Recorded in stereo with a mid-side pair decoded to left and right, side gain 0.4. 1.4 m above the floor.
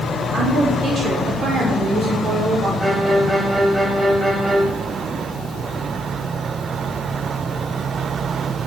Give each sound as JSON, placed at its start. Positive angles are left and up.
{"t": 0.3, "sound": "a woman speaking", "azimuth_deg": -60, "distance_m": 5.0}
{"t": 2.8, "sound": "a violin", "azimuth_deg": -5, "distance_m": 4.0}